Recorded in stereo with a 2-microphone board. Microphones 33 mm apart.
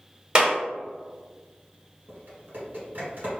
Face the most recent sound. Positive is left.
turn(degrees=-60)  # may be behind; listen again after turning